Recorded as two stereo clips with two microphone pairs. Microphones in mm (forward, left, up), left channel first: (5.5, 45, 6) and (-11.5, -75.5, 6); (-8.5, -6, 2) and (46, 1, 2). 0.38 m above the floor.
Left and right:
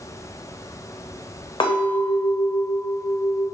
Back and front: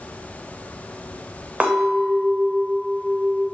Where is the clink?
55° left, 0.6 m.